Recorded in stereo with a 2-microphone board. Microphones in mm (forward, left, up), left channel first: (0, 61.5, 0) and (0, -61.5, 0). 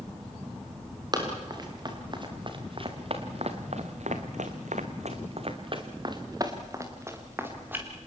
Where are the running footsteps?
30° right (ahead or behind), 5.5 m; by 7.8 s 15° right (ahead or behind), 4.5 m.